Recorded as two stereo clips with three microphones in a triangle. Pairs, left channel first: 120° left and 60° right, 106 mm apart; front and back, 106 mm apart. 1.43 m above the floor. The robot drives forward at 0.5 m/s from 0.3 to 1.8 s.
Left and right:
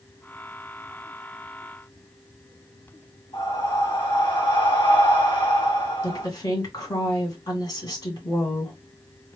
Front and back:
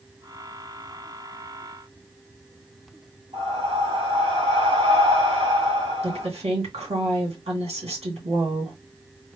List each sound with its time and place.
3.3 s breathing: 155° left, 2 m
6.0 s a woman speaking: 165° left, 2.5 m